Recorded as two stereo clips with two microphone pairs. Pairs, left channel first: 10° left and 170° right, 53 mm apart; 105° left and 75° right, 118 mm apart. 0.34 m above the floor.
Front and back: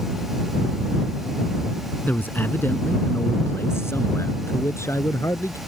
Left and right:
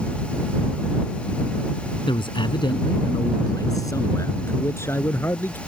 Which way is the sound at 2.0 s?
65° left.